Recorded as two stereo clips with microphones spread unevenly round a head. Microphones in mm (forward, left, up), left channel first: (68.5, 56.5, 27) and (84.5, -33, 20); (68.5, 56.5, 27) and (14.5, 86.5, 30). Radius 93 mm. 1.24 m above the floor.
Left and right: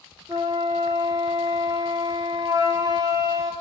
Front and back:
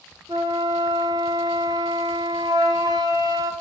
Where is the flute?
150° right, 0.6 m.